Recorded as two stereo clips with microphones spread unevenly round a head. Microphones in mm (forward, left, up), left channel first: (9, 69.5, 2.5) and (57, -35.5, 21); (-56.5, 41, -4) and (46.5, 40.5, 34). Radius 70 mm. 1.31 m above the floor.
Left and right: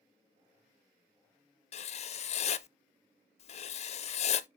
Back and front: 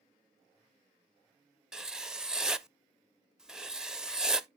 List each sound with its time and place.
1.7 s writing: 80° left, 0.6 m